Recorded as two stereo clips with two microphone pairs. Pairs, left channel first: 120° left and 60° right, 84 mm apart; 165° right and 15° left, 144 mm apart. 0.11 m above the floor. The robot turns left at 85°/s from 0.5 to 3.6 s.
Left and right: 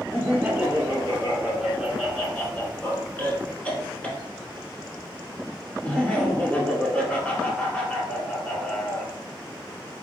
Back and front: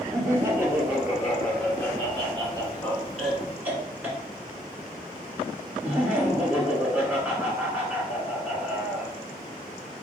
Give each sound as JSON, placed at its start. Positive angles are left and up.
{"t": 0.1, "sound": "laughter", "azimuth_deg": -20, "distance_m": 1.2}